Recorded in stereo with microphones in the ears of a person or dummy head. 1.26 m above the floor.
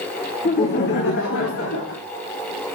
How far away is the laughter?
About 0.9 m.